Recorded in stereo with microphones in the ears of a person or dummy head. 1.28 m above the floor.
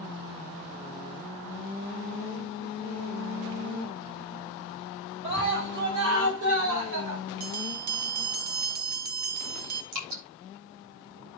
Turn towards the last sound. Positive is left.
turn(degrees=-75)  # may be behind; listen again after turning